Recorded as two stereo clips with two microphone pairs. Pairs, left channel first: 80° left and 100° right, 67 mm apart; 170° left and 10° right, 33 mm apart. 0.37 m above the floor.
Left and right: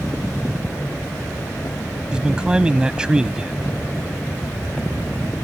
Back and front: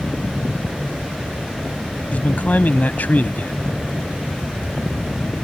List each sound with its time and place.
2.1 s a man speaking: 175° right